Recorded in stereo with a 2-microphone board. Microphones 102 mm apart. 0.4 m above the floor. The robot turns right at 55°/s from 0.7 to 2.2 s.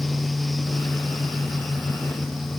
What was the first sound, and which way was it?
Only background noise.